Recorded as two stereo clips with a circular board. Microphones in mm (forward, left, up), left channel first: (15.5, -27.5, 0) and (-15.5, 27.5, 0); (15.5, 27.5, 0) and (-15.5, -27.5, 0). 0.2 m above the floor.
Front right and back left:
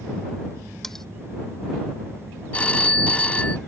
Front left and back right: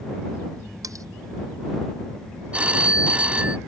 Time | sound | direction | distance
0.8 | cutlery clinking | 145° right | ?
2.5 | a phone ringing | 95° right | ?